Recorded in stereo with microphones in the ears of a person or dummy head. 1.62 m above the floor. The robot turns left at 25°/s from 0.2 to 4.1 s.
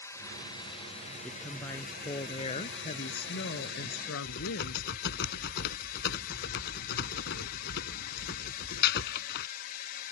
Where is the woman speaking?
175° left; by 5.2 s 100° left.